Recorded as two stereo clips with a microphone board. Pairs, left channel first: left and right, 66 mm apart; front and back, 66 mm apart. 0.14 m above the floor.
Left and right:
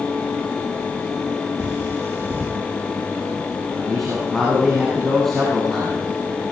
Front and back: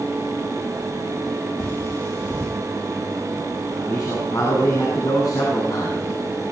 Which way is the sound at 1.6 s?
30° right.